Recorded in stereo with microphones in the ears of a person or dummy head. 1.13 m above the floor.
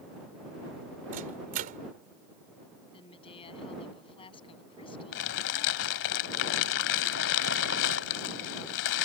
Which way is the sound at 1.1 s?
45° right (ahead or behind).